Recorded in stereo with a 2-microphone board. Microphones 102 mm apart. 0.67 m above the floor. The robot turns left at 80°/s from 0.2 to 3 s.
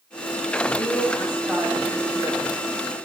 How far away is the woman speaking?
About 6 m.